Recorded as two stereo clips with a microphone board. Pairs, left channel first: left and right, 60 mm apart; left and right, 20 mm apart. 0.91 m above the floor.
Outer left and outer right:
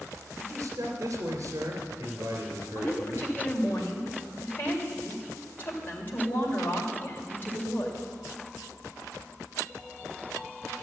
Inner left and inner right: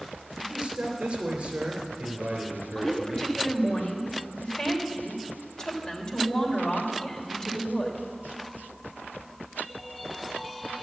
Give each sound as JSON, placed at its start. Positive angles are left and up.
{"t": 0.4, "sound": "a man speaking", "side_deg": -65, "distance_m": 3.0}
{"t": 2.8, "sound": "a woman speaking", "side_deg": 35, "distance_m": 3.0}